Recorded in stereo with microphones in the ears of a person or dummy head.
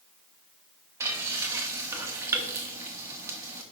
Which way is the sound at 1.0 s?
20° right (ahead or behind).